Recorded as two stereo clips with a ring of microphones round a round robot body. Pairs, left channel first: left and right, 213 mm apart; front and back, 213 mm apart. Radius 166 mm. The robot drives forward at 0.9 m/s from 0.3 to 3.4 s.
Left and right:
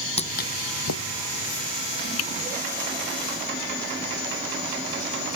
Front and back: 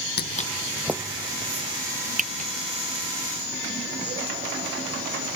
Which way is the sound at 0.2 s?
30° left.